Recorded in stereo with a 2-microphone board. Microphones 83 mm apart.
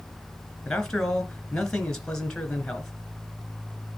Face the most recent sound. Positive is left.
turn(degrees=5)  # may be behind; listen again after turning